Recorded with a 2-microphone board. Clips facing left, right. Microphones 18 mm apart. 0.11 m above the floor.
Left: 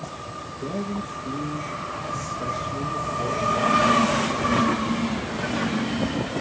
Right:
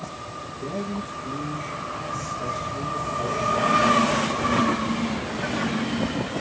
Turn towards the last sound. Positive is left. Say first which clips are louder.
# left 1 dB
turn(degrees=40)  # may be behind; listen again after turning